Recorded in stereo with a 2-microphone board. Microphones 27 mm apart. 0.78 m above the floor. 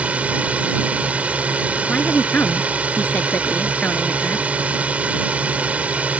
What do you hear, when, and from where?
0.0 s a drone: 60° right (ahead or behind)
1.9 s a woman speaking: 85° left